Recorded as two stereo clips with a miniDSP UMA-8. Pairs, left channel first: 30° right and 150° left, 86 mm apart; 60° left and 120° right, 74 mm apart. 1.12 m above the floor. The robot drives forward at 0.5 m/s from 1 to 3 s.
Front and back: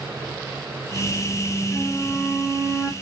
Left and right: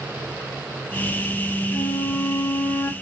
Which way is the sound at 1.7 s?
35° left.